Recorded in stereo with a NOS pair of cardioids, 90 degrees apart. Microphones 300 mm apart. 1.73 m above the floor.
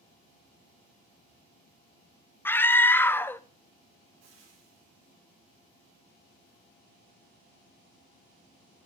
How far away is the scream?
About 1.0 m.